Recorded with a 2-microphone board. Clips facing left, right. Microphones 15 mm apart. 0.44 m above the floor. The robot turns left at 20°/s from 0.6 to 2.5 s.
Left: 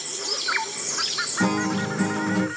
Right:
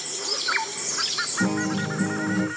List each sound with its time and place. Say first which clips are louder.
1.4 s a guitar: left 3 dB; 60° left (ahead or behind), 0.9 m; by 2.5 s 80° left, 0.9 m